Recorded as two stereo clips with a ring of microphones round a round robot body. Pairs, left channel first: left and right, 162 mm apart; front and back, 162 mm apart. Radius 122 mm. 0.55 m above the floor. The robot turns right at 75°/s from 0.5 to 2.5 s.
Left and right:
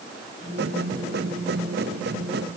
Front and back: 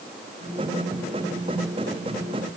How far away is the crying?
I don't hear crying.